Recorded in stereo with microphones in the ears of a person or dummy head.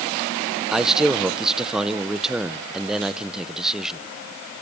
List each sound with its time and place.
0.7 s a man speaking: 5° right (ahead or behind), 0.7 m